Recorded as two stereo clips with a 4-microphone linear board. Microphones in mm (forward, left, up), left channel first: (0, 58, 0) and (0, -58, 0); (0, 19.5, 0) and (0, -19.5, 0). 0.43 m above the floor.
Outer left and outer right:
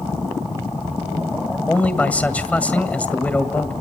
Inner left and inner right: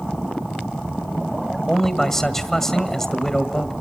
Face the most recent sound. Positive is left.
turn(degrees=10)  # may be behind; listen again after turning